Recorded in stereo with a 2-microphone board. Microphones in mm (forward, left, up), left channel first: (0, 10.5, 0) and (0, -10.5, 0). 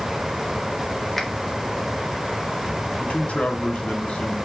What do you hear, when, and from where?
1.2 s a finger snap: 5° left (ahead or behind), 1.6 m
3.0 s a man speaking: 75° left (ahead or behind), 2.5 m